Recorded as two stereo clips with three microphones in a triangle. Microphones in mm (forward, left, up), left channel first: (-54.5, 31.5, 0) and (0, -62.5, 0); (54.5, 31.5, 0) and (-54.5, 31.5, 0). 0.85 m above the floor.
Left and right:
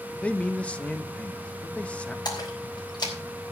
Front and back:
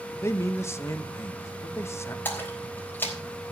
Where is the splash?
70° left, 4 m.